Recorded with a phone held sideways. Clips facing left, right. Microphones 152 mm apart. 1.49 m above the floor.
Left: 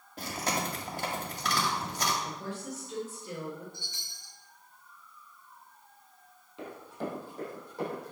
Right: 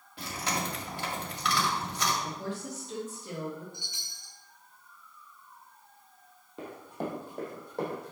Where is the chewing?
45° left (ahead or behind), 1.6 m.